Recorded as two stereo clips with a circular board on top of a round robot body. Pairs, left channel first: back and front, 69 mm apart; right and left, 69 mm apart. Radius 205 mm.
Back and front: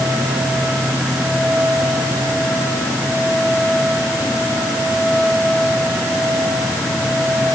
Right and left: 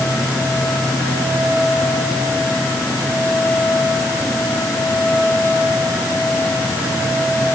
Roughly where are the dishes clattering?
No dishes clattering in this recording.